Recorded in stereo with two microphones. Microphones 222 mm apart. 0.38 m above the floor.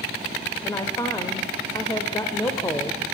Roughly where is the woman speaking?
Centre.